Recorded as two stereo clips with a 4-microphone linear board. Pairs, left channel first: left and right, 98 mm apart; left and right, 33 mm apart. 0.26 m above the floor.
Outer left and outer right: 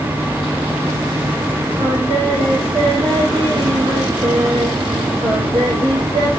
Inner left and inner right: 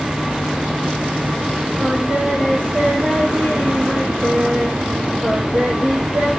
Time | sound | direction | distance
1.8 | singing | 55° right (ahead or behind) | 4 m